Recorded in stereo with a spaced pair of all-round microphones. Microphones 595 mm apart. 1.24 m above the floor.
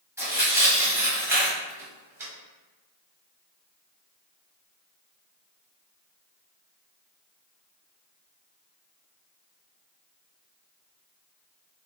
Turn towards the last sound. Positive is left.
turn(degrees=-5)  # may be behind; listen again after turning